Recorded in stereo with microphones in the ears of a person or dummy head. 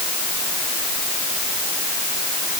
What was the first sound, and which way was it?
Only background noise.